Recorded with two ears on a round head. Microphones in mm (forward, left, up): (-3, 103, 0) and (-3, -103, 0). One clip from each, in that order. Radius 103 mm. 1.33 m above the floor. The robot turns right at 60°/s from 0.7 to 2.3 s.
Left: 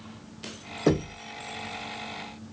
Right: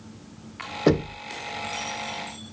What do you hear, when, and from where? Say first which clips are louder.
0.9 s knocking: right 3 dB; 5° right (ahead or behind), 0.6 m; by 1.2 s 25° right (ahead or behind), 0.6 m